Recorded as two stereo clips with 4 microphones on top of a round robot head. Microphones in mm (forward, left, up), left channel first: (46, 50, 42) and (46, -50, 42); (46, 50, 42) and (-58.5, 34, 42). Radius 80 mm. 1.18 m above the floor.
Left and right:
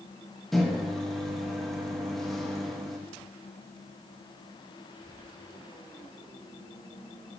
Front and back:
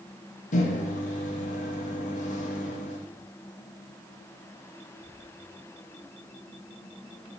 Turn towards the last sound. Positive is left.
turn(degrees=5)